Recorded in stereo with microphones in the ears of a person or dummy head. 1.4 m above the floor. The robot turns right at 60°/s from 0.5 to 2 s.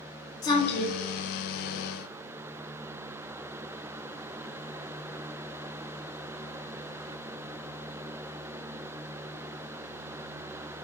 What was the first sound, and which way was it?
A woman speaking, 25° left (ahead or behind).